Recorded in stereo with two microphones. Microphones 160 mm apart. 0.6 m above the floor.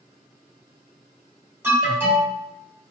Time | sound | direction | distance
1.6 | an alarm | 15° right (ahead or behind) | 1.4 m